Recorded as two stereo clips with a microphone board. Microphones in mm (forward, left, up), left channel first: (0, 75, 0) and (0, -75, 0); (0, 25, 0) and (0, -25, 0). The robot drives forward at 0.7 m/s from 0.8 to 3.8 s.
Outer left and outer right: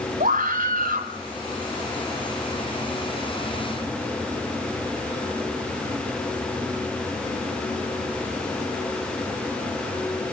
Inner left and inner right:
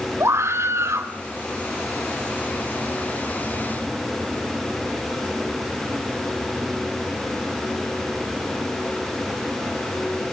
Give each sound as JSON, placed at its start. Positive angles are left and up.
{"t": 0.2, "sound": "a scream", "side_deg": -70, "distance_m": 2.5}